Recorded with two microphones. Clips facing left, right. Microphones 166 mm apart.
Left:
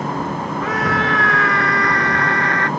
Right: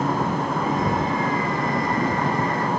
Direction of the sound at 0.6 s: 80° left.